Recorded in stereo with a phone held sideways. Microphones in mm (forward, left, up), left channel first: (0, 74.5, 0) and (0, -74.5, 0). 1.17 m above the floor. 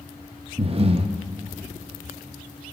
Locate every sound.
0.6 s breathing: 40° right (ahead or behind), 0.5 m